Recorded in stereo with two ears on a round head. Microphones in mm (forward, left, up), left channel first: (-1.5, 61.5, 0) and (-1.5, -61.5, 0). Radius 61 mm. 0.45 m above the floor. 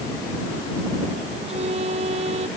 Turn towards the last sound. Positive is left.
turn(degrees=-50)  # may be behind; listen again after turning